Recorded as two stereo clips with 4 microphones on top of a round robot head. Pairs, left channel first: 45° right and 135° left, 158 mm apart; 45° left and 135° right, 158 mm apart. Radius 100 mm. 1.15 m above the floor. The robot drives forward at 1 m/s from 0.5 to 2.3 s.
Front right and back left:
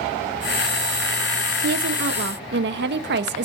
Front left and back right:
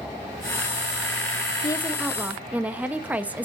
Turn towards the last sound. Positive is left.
turn(degrees=145)